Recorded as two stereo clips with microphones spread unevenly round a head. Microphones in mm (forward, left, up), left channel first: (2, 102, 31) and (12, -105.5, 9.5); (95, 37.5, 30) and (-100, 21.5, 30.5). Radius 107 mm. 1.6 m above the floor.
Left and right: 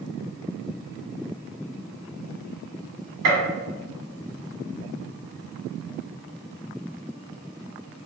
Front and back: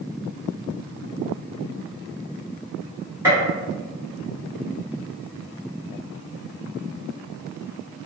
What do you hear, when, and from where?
3.2 s a gunshot: 95° right, 1.0 m